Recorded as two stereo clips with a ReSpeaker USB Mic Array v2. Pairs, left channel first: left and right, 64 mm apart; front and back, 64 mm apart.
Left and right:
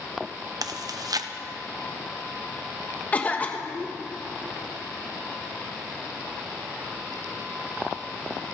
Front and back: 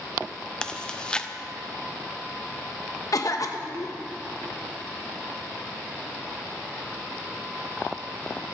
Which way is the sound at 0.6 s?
80° right.